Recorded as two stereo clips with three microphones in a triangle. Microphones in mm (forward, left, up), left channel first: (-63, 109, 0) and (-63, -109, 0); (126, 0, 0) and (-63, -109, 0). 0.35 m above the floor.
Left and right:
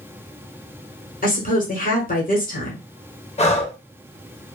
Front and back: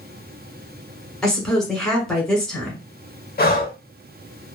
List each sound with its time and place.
1.2 s a woman speaking: 115° left, 1.3 m
3.4 s breathing: 45° left, 0.5 m